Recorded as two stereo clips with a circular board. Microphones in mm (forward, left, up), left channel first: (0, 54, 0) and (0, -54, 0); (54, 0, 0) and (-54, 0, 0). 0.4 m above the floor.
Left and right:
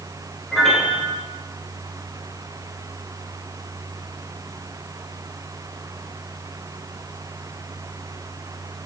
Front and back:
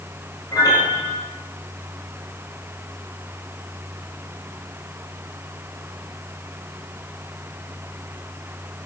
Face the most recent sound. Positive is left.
turn(degrees=5)